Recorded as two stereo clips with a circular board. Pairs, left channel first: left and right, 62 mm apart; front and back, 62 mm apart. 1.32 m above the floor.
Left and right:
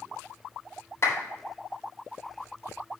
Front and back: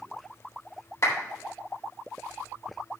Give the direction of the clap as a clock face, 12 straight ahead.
11 o'clock.